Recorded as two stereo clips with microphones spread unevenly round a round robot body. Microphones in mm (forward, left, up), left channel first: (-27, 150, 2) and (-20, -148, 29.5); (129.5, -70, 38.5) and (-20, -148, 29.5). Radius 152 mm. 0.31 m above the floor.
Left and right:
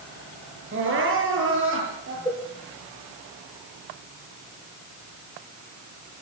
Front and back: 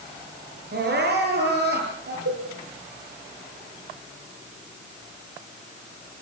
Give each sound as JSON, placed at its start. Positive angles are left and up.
{"t": 0.7, "sound": "crying", "azimuth_deg": -140, "distance_m": 9.5}
{"t": 2.2, "sound": "a cowbell", "azimuth_deg": 170, "distance_m": 6.0}